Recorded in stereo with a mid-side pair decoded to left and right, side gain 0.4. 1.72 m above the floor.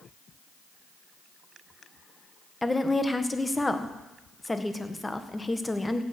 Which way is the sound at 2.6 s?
15° left.